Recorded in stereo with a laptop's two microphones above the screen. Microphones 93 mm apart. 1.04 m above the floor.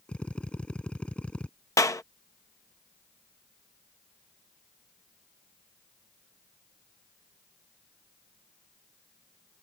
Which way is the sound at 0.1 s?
10° left (ahead or behind).